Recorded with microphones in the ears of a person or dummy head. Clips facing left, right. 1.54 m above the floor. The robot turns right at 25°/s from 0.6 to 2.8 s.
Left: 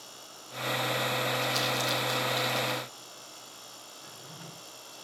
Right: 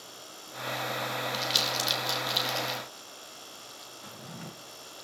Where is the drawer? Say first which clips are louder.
Right 6 dB; 55° right (ahead or behind), 2 m.